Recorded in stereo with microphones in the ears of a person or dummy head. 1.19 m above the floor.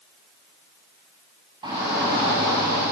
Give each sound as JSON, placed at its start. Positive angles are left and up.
{"t": 1.6, "sound": "a shout", "side_deg": -25, "distance_m": 8.5}